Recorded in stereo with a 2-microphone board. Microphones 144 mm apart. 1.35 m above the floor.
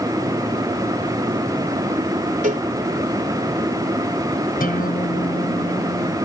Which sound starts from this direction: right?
A cowbell, at 2.4 s.